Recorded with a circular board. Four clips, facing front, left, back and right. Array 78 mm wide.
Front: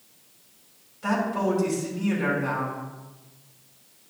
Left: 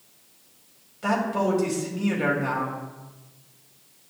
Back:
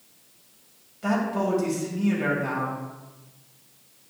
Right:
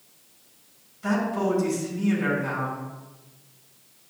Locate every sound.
1.0 s a man speaking: 100° left, 2.5 m